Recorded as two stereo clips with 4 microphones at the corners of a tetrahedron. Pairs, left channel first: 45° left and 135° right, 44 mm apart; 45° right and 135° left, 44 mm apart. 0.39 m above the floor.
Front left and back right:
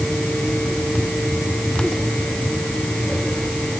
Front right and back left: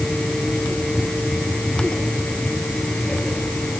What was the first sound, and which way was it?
Only background noise.